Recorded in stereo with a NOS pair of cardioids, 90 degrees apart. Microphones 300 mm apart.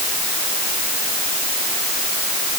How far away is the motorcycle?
No motorcycle in this recording.